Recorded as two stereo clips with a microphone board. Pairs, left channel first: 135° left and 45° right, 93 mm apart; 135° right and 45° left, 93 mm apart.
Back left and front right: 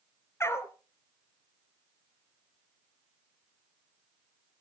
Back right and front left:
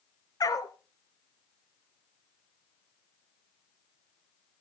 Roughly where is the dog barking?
Behind.